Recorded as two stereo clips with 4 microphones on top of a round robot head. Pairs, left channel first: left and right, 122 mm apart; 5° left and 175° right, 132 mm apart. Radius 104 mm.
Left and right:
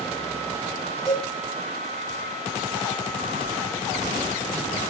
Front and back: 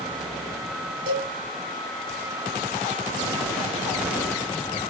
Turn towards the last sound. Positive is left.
turn(degrees=-160)